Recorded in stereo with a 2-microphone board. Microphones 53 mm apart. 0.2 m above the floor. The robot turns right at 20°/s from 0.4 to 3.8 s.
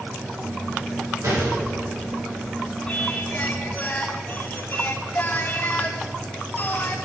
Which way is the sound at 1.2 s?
85° right.